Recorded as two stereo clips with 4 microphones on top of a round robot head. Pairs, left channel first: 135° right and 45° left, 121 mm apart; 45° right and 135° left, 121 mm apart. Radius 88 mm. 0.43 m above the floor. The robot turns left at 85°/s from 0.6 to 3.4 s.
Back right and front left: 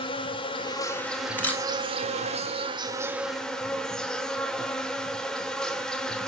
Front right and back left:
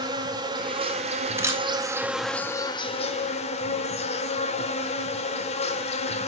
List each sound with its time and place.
0.0 s an insect: 175° right, 1.2 m; by 6.3 s 50° right, 1.2 m
1.4 s a camera shutter: 170° left, 1.5 m; by 1.6 s 150° left, 1.5 m